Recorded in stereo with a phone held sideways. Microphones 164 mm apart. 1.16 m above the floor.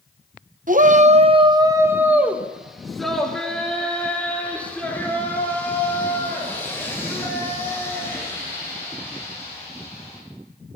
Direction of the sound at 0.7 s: 55° right (ahead or behind).